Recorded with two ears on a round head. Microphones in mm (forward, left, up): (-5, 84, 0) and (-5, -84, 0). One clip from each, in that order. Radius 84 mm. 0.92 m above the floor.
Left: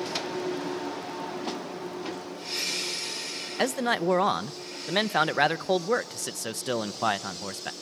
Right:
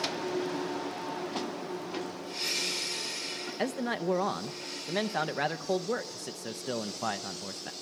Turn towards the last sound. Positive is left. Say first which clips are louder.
# left 7 dB
turn(degrees=35)  # may be behind; listen again after turning